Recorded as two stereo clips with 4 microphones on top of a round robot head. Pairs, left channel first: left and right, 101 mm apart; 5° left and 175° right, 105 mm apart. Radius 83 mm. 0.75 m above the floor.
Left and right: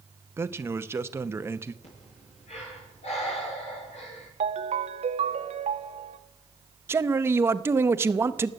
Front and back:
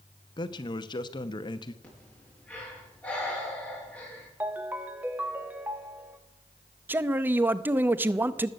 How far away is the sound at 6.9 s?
About 0.7 m.